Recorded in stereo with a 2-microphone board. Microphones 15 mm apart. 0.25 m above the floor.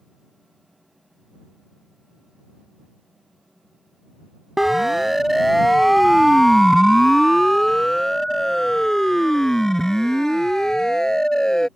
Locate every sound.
4.6 s a siren: 15° right (ahead or behind); by 11.7 s 40° left (ahead or behind)